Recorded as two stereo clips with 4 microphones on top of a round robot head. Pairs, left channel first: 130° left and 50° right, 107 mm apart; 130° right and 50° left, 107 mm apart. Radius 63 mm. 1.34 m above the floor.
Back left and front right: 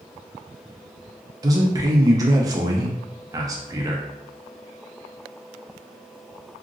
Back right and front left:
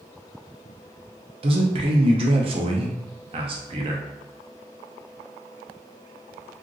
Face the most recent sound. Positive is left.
turn(degrees=10)